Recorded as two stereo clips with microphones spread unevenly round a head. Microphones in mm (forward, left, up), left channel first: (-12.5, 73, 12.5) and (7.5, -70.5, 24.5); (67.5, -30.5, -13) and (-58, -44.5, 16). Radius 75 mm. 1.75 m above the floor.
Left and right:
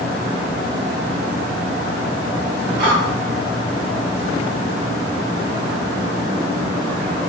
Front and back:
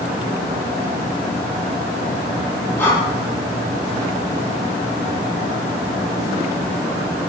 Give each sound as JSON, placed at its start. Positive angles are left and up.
{"t": 2.8, "sound": "breathing", "azimuth_deg": -75, "distance_m": 1.5}